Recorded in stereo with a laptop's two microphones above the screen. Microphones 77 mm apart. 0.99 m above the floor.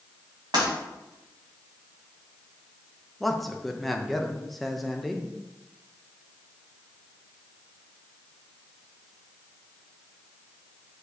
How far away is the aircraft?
No aircraft in this recording.